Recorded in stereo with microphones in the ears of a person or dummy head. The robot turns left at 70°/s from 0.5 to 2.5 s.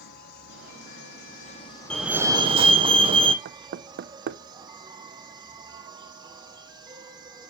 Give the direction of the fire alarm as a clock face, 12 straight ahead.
12 o'clock.